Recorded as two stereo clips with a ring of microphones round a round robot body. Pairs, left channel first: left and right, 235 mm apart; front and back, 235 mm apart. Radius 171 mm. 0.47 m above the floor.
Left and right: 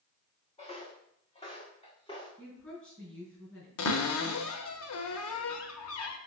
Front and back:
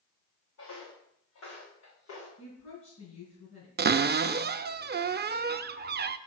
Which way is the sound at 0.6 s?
25° left.